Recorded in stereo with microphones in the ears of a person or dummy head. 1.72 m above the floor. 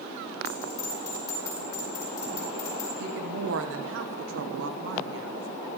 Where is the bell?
20° left (ahead or behind), 4 m.